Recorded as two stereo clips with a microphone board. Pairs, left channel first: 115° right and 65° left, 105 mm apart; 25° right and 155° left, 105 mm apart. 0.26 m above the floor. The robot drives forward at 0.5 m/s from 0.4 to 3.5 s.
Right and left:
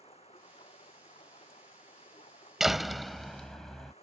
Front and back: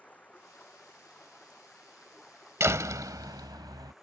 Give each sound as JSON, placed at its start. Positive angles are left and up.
{"t": 0.0, "sound": "running water", "azimuth_deg": -100}
{"t": 2.6, "sound": "a door slam", "azimuth_deg": 150}